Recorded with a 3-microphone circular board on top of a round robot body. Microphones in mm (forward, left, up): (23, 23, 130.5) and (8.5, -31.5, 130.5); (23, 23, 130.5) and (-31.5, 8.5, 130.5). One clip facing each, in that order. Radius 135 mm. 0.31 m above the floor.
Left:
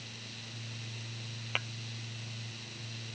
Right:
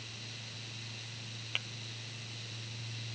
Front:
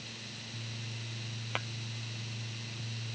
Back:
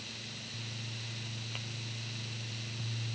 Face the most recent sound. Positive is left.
turn(degrees=20)